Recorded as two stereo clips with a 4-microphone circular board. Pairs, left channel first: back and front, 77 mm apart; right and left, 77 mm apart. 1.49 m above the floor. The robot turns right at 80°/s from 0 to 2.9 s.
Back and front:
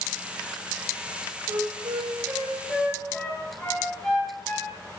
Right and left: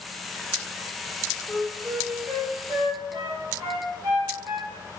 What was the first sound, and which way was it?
A flute, 5° right.